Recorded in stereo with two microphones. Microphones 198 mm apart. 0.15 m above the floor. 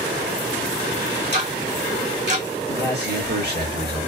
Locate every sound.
1.3 s ticking: 60° right (ahead or behind), 2.5 m
2.7 s a man speaking: 55° right (ahead or behind), 3 m